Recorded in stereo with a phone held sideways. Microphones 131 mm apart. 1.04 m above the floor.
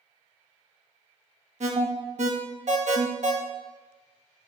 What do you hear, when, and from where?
1.6 s an alarm: 65° right (ahead or behind), 1.2 m